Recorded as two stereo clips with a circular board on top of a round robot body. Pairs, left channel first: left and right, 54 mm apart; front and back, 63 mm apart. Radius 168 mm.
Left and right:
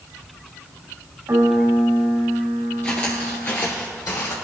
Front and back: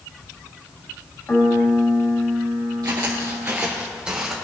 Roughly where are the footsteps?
Behind left.